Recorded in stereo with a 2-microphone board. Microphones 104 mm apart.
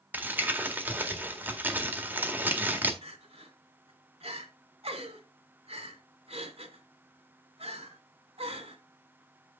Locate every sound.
0.1 s crumpling: 20° right (ahead or behind), 1.7 m
3.0 s crying: 80° right, 2 m